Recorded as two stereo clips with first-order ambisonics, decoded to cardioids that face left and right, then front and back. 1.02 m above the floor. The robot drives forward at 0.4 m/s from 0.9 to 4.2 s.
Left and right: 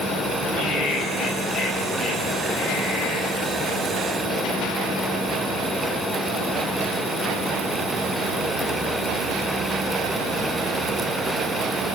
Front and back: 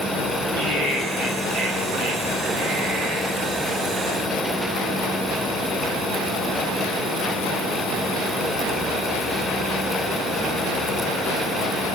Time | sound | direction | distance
0.5 | laughter | 155° left | 9 m